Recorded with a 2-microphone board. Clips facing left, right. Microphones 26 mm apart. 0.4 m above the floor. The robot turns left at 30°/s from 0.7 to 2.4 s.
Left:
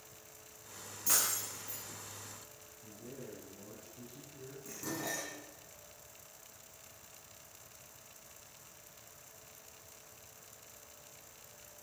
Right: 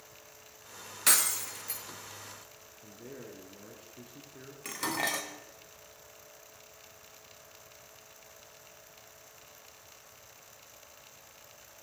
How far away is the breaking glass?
About 2.5 m.